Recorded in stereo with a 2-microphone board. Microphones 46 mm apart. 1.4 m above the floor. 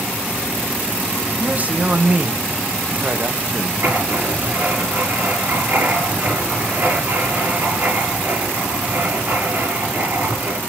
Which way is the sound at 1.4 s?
30° right (ahead or behind).